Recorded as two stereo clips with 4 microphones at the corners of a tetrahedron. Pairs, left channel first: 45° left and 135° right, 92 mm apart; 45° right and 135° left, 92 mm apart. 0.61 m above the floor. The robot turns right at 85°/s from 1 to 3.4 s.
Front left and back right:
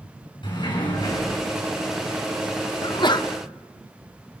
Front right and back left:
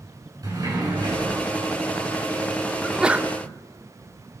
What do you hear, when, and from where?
0.4 s a sliding door: 80° left, 7.5 m; by 1.4 s 110° left, 7.5 m
2.8 s a sneeze: 35° left, 1.3 m; by 3.3 s 75° left, 1.3 m